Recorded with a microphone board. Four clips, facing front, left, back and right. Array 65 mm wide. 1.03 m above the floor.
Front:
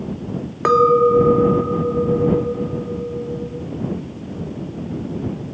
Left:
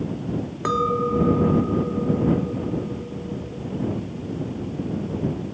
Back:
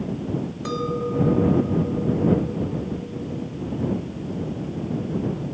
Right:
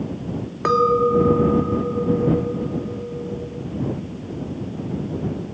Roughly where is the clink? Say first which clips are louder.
Right 6 dB, front 15 dB; ahead.